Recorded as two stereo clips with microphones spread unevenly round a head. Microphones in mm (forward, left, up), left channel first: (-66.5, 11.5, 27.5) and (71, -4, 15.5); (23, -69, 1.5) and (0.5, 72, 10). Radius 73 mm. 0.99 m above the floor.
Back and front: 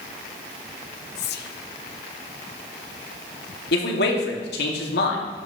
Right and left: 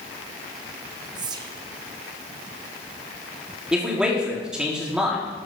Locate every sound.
1.1 s whispering: 165° left, 0.9 m
3.7 s a man speaking: 175° right, 2 m